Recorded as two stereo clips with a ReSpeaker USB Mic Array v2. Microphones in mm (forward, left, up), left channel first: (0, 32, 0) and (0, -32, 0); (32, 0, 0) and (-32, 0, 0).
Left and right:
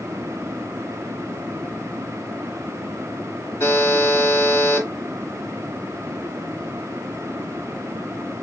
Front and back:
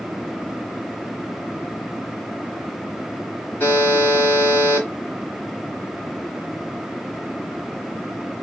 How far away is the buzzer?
About 2.5 m.